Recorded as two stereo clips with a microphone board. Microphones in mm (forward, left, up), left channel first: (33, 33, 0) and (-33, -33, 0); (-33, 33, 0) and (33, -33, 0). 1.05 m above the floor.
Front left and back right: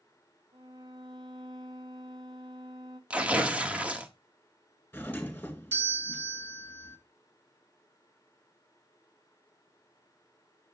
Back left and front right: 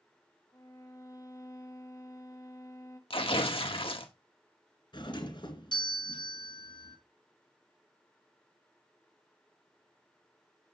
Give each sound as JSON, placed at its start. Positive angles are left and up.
{"t": 0.5, "sound": "a violin", "azimuth_deg": -175, "distance_m": 1.4}
{"t": 3.1, "sound": "tearing paper", "azimuth_deg": 150, "distance_m": 1.4}
{"t": 4.9, "sound": "a doorbell", "azimuth_deg": 115, "distance_m": 2.5}